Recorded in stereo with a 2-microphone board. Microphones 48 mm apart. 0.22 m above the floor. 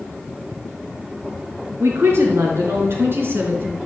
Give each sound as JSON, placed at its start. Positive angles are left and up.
{"t": 1.8, "sound": "a woman speaking", "side_deg": -65, "distance_m": 4.0}